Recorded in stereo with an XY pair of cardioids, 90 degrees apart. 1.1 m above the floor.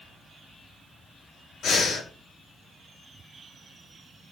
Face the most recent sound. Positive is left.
turn(degrees=65)